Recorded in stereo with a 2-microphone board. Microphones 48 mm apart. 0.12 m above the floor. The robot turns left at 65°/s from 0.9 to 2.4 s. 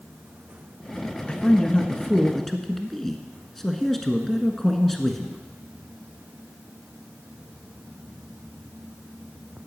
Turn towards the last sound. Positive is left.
turn(degrees=10)  # may be behind; listen again after turning